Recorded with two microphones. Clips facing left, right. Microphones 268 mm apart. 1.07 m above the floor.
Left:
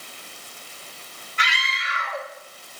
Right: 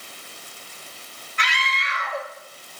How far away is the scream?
About 2.5 m.